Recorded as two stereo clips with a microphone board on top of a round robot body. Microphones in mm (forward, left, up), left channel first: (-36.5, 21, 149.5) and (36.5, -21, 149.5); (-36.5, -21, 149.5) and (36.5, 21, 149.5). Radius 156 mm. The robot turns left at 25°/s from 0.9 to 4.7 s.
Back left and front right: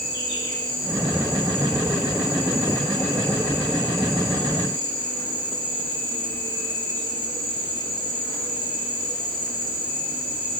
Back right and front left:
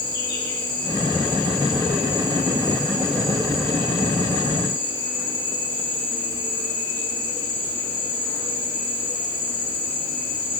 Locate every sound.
0.0 s an insect: 175° right, 5 m; by 10.6 s 90° left, 5 m